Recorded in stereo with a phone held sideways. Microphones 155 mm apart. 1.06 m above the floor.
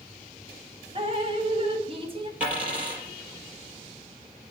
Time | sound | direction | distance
0.9 | dripping | 35° right (ahead or behind) | 1.1 m
2.4 | a dropped coin | 10° right (ahead or behind) | 4.5 m